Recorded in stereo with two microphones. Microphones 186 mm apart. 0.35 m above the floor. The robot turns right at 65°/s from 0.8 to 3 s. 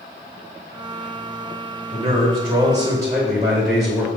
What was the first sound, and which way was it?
A man speaking, 20° right (ahead or behind).